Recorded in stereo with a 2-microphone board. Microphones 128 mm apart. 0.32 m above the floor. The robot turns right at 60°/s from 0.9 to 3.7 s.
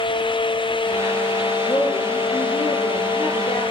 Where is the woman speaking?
20° left, 8 m; by 3.6 s 135° left, 8 m.